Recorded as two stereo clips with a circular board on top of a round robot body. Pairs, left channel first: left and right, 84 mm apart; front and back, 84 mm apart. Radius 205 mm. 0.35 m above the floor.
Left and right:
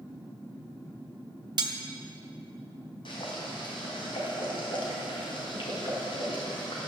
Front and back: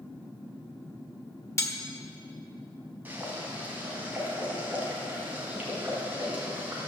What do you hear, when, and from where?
1.6 s cutlery clinking: 60° right, 1.4 m
3.0 s boiling: 105° left, 3 m